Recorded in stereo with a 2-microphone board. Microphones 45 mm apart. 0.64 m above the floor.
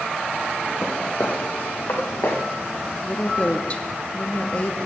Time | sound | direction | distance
0.8 | footsteps | 30° left (ahead or behind) | 1.8 m
3.0 | a woman speaking | 30° left (ahead or behind) | 0.6 m